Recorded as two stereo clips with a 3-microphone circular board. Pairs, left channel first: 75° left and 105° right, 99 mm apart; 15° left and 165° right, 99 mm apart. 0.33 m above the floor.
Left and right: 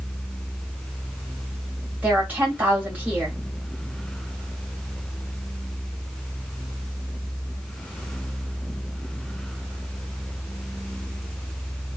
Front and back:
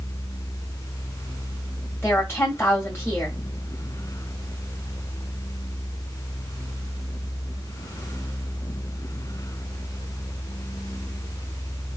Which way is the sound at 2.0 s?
35° right.